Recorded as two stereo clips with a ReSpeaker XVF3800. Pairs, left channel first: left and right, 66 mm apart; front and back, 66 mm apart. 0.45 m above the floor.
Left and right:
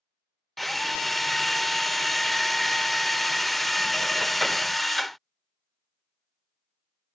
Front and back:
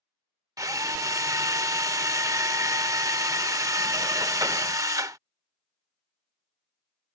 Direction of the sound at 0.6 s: Straight behind.